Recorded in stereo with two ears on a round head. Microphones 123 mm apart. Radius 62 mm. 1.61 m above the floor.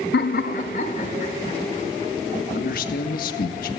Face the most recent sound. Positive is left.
turn(degrees=70)  # may be behind; listen again after turning